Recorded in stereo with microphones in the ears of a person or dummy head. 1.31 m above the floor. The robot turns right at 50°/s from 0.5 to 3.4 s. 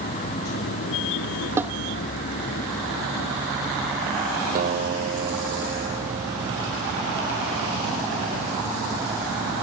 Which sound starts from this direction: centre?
A snare drum, at 1.6 s.